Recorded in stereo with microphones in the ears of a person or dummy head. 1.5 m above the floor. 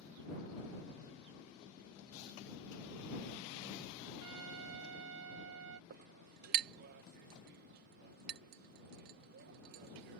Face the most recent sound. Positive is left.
turn(degrees=-55)  # may be behind; listen again after turning